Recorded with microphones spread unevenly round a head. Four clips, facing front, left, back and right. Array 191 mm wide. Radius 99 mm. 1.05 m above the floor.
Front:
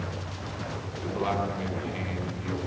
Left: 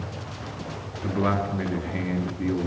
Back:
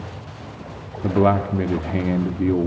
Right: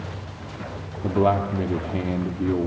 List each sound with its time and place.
1.0 s a man speaking: 165° right, 2 m